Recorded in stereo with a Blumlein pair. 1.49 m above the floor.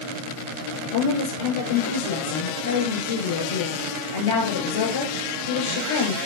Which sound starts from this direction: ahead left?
A woman speaking, at 0.9 s.